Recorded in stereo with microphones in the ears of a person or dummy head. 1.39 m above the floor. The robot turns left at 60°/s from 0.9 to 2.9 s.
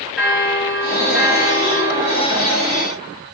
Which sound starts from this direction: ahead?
A bell, at 0.2 s.